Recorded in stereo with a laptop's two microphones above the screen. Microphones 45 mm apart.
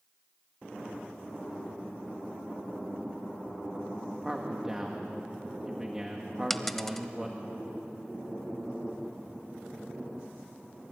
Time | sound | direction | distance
4.2 | a man speaking | 15° right (ahead or behind) | 1.5 m
6.5 | a dropped coin | 5° left (ahead or behind) | 0.9 m